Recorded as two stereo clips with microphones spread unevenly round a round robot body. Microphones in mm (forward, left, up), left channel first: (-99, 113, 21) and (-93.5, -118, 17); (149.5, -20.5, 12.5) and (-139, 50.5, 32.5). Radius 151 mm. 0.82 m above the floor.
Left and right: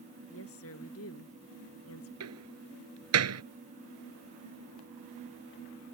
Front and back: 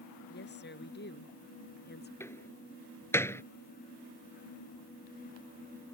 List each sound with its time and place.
0.3 s a woman speaking: 45° left
2.2 s a door slam: 95° right